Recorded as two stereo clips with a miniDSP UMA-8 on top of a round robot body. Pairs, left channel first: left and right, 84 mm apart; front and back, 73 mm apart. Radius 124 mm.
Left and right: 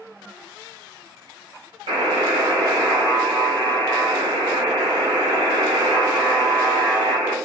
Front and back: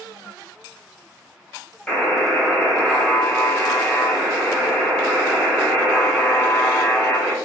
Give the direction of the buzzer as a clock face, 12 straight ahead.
3 o'clock.